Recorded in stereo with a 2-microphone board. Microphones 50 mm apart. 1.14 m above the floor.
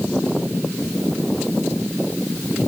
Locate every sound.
Only background noise.